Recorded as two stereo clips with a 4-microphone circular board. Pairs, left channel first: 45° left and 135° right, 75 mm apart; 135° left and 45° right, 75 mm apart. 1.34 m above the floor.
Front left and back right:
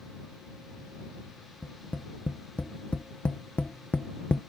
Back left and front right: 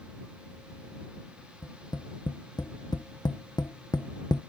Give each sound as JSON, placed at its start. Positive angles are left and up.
{"t": 1.6, "sound": "tapping", "azimuth_deg": 120}